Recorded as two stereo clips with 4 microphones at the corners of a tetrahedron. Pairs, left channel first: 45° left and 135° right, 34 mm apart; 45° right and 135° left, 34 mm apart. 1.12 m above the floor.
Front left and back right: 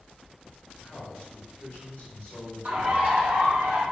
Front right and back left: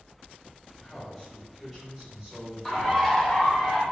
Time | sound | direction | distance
0.8 | a man speaking | 30° left | 1.4 m
2.6 | a bird | 115° right | 0.9 m